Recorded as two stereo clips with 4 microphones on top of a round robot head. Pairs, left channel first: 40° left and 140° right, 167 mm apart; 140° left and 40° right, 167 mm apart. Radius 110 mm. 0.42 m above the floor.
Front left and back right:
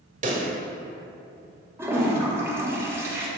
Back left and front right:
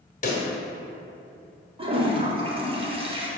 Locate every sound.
0.2 s a pop: straight behind, 1.4 m
1.8 s a toilet flushing: 75° right, 1.3 m